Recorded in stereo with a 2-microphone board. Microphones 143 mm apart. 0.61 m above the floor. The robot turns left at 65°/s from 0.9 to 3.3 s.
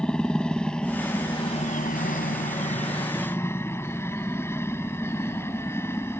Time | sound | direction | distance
0.0 | a helicopter | 175° left | ?